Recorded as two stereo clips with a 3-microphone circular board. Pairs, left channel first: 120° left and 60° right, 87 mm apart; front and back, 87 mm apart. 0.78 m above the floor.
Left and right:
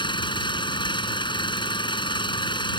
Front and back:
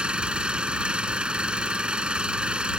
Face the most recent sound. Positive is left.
turn(degrees=100)